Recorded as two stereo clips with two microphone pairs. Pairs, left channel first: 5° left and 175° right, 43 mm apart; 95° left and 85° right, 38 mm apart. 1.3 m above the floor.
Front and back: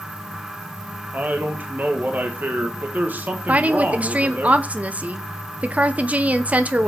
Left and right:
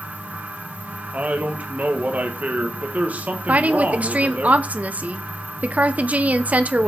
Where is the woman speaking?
120° right, 0.8 m.